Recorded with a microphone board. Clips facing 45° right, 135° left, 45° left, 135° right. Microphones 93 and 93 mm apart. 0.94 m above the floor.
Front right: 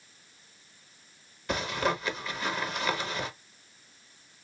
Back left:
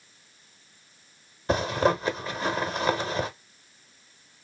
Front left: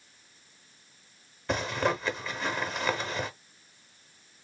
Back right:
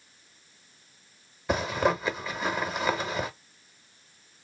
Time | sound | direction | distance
1.5 | a zipper | 150° left | 0.7 m